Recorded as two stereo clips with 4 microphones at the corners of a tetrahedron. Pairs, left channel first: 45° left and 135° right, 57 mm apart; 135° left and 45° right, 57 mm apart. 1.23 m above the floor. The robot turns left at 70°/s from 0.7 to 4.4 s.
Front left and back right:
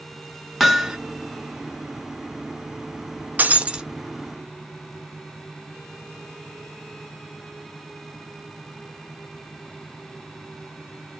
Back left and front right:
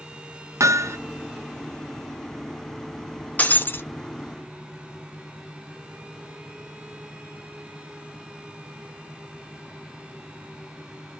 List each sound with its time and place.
0.6 s hammering: 45° right, 0.6 m; by 1.0 s 65° right, 0.6 m
3.4 s breaking glass: 175° right, 0.7 m; by 3.9 s 150° left, 0.7 m